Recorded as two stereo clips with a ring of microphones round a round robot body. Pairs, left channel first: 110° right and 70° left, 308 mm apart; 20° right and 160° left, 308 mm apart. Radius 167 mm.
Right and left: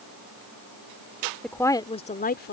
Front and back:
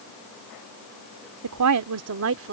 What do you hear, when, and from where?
1.4 s a woman speaking: 160° left; by 2.5 s 160° right